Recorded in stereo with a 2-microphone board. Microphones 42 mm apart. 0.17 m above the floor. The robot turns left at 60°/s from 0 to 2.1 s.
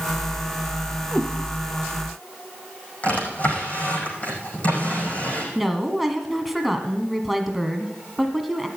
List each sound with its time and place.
1.1 s a cat meowing: centre (ahead or behind), 3.5 m; by 1.3 s 10° left (ahead or behind), 3.5 m
3.0 s a drawer: 35° left (ahead or behind), 5 m
5.5 s a woman speaking: centre (ahead or behind), 1.5 m